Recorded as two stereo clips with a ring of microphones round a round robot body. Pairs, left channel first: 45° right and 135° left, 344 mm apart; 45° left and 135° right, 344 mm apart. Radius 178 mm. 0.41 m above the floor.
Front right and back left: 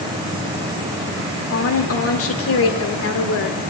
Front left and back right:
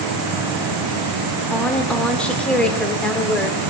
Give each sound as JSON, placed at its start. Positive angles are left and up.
{"t": 1.5, "sound": "a woman speaking", "azimuth_deg": -40, "distance_m": 1.3}